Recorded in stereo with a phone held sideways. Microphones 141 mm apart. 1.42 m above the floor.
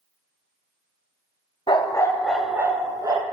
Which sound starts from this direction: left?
A dog barking, at 1.7 s.